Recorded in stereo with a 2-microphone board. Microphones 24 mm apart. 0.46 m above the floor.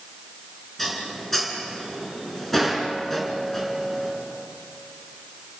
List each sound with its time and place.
0.8 s dishes clattering: 10° left (ahead or behind), 4 m